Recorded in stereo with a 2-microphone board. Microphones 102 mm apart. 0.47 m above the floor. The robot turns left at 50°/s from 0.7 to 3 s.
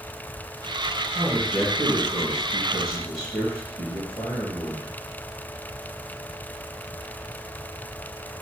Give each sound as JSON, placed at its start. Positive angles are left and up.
{"t": 1.1, "sound": "a man speaking", "azimuth_deg": -175, "distance_m": 2.0}